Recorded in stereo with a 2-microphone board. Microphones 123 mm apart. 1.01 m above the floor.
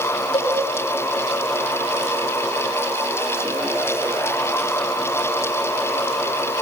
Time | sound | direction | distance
0.3 | a cowbell | 50° left (ahead or behind) | 6 m